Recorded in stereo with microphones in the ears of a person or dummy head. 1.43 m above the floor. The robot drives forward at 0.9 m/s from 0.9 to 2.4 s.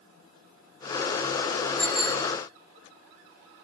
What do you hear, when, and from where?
1.8 s a bicycle bell: 55° right (ahead or behind), 4.5 m; by 2.3 s 60° right (ahead or behind), 4 m